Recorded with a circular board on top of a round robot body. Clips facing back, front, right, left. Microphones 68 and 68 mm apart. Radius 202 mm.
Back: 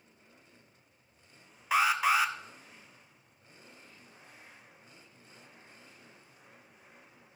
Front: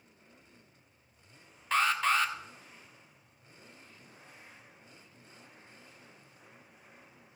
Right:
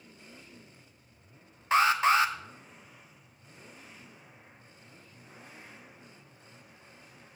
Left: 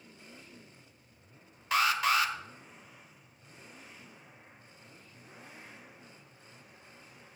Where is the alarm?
110° right, 1.1 m.